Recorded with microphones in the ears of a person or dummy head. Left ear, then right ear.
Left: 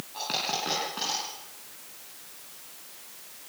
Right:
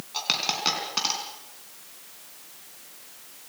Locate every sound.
0.1 s a dropped coin: 70° right (ahead or behind), 4.5 m